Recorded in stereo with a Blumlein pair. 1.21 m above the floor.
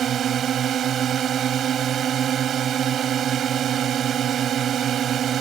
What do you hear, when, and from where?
0.0 s a drone: 25° right